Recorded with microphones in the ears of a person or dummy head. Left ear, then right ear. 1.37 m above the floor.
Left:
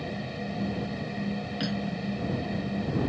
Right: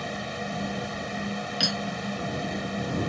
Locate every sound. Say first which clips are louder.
0.0 s a fan: right 3 dB; 45° right (ahead or behind)
1.6 s cutlery clinking: right 9 dB; 50° right (ahead or behind)